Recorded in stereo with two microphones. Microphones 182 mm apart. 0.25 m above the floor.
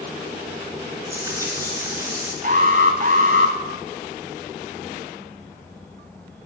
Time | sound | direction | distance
1.1 | frying | 15° right (ahead or behind) | 3 m
2.4 | an alarm | 50° right (ahead or behind) | 1.2 m